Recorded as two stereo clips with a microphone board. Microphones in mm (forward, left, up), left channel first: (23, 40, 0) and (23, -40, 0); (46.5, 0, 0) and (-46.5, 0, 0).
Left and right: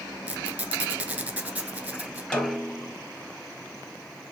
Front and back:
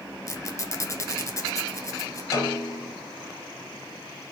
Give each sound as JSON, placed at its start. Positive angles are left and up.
{"t": 0.3, "sound": "a squeak", "azimuth_deg": -30, "distance_m": 1.0}
{"t": 2.3, "sound": "a snare drum", "azimuth_deg": 20, "distance_m": 1.5}